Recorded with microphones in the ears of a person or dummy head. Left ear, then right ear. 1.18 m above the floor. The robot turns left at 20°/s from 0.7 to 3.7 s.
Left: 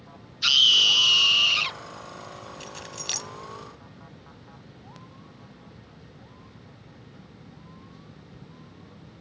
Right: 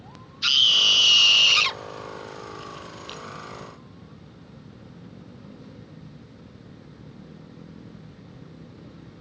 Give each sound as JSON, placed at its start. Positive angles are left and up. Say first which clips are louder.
{"t": 0.4, "sound": "a scream", "louder": "even", "side_deg": 0}
{"t": 2.6, "sound": "keys jangling", "louder": "left 2 dB", "side_deg": 55}